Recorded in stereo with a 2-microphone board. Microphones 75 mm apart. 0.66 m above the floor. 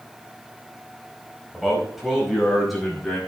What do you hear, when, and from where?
1.5 s a man speaking: 5° right (ahead or behind), 4.5 m; by 3.2 s centre (ahead or behind), 5.5 m